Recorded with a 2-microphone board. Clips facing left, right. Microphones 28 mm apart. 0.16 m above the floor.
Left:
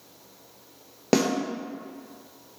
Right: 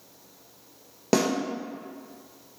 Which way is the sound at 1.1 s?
15° left (ahead or behind).